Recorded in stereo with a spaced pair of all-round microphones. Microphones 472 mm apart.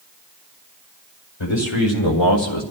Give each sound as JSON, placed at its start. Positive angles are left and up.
{"t": 1.4, "sound": "a man speaking", "side_deg": 80, "distance_m": 2.5}